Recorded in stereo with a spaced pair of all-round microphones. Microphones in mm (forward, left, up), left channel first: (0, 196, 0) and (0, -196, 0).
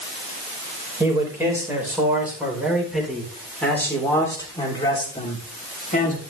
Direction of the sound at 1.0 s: 10° right (ahead or behind).